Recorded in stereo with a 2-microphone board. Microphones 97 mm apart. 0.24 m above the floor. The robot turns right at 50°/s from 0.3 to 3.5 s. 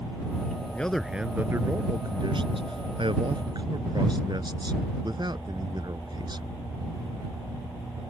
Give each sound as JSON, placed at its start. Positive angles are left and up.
{"t": 0.7, "sound": "a man speaking", "azimuth_deg": 165}